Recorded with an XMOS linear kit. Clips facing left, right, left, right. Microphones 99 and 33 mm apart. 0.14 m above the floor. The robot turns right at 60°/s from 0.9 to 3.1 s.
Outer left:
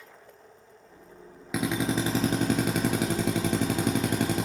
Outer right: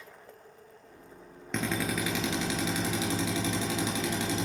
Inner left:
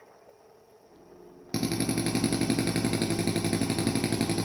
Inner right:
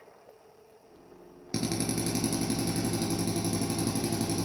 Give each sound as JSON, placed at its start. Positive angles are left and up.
{"t": 1.5, "sound": "a drill", "azimuth_deg": 10, "distance_m": 1.0}